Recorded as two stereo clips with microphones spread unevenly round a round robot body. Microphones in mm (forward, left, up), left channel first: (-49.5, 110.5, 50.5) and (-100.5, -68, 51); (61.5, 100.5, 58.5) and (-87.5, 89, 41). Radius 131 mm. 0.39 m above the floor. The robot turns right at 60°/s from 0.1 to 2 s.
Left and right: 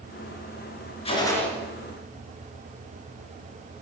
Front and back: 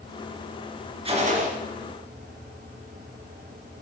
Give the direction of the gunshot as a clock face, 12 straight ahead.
8 o'clock.